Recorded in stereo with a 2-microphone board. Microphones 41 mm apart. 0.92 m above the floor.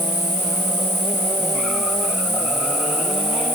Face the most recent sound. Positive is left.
turn(degrees=-80)